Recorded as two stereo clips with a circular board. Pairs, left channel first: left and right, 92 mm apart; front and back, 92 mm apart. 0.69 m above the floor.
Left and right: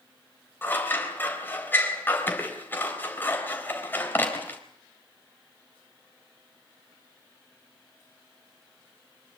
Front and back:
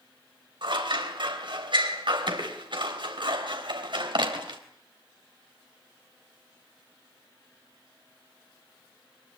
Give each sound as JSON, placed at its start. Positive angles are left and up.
{"t": 0.6, "sound": "scissors", "azimuth_deg": 155, "distance_m": 3.5}